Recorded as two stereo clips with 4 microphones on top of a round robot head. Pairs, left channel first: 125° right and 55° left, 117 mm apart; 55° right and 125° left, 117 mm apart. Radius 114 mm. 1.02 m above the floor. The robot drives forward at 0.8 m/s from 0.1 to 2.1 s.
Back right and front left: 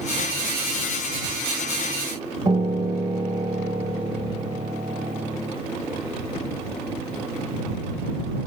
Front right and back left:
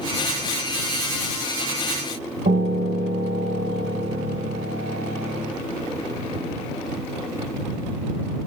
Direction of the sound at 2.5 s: 120° left.